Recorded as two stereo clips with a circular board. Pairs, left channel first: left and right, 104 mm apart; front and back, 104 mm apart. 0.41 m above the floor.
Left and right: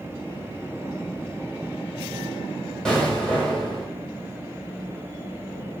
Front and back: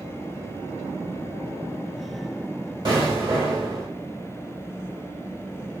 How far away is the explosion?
About 1.5 m.